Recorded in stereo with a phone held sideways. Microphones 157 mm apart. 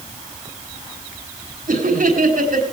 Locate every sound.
1.7 s laughter: 75° right (ahead or behind), 5 m